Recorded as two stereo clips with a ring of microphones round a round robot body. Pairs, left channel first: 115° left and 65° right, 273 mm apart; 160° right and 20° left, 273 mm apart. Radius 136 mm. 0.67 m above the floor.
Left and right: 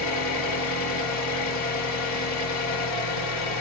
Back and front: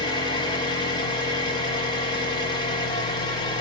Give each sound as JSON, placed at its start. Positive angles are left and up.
{"t": 0.0, "sound": "an engine running", "azimuth_deg": 130, "distance_m": 1.5}